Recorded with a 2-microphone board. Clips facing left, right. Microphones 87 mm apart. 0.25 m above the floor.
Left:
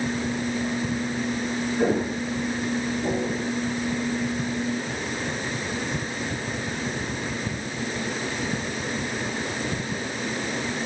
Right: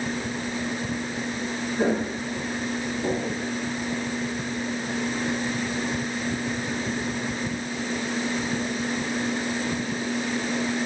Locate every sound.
1.8 s footsteps: 10° right (ahead or behind), 9 m; by 3.4 s centre (ahead or behind), 7.5 m